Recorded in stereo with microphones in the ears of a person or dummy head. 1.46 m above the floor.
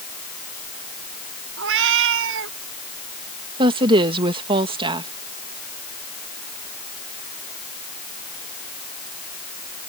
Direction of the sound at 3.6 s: 30° right (ahead or behind).